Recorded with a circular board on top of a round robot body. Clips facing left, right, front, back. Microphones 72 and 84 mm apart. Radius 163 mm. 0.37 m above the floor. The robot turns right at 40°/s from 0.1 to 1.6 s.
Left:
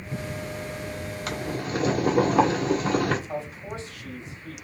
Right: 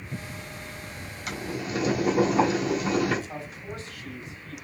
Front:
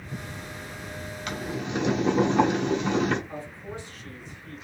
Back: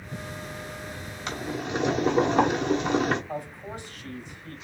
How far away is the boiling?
About 2.5 m.